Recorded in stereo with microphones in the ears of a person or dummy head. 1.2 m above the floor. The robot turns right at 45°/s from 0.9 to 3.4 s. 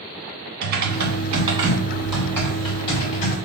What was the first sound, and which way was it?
Typing on a keyboard, 55° right.